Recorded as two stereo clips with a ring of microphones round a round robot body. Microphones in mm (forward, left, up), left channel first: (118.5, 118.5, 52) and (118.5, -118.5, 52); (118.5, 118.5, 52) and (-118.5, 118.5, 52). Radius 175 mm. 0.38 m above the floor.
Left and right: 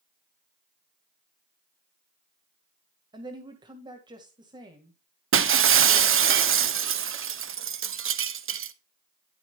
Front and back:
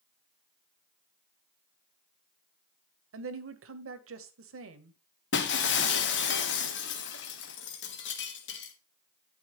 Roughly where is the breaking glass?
Ahead right.